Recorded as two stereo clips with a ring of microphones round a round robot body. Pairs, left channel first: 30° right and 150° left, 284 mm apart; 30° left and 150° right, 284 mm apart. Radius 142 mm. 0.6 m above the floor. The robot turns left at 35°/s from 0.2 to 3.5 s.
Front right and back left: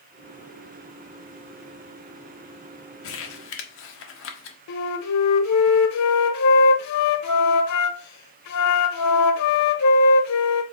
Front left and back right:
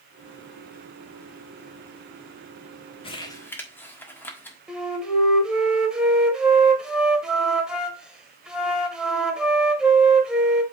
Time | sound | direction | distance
3.0 | crumpling | 35° right | 1.5 m
4.7 | a flute | 65° right | 1.3 m